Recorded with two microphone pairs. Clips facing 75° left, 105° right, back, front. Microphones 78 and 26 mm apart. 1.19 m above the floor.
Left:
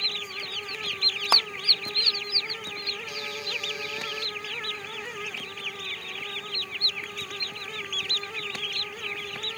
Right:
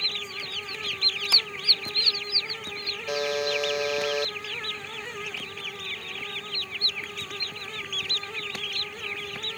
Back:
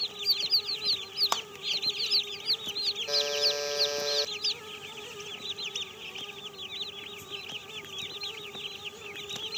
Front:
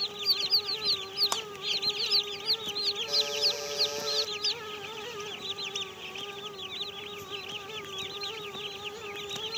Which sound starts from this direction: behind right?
A buzzer, at 3.1 s.